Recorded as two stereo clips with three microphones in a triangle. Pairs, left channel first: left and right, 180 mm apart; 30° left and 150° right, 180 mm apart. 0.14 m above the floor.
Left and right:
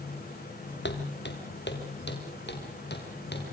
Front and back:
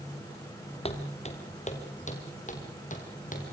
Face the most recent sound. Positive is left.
turn(degrees=75)